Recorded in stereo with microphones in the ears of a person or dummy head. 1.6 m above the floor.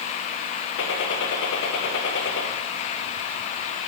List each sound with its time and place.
0.8 s a gunshot: 70° left (ahead or behind), 1.7 m